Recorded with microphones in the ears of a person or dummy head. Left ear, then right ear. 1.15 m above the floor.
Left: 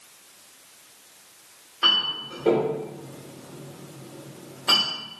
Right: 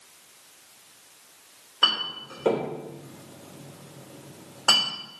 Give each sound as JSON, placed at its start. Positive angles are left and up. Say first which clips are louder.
{"t": 1.8, "sound": "a clink", "louder": "left 3 dB", "side_deg": -65, "distance_m": 3.0}